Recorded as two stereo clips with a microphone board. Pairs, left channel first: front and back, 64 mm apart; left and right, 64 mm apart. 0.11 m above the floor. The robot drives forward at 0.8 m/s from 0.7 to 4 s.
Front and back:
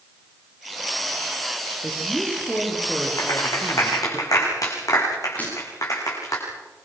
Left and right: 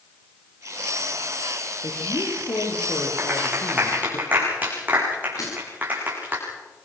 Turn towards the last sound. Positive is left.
turn(degrees=65)